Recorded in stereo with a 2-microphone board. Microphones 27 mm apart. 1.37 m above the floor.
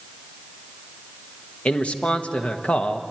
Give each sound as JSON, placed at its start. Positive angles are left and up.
{"t": 1.6, "sound": "a man speaking", "side_deg": 50, "distance_m": 1.1}